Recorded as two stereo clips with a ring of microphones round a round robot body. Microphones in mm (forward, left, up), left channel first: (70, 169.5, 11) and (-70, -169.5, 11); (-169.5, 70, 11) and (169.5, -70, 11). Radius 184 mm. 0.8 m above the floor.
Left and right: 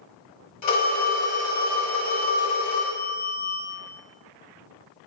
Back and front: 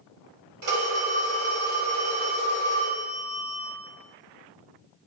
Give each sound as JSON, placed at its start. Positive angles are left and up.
{"t": 0.6, "sound": "a phone ringing", "azimuth_deg": 20, "distance_m": 1.9}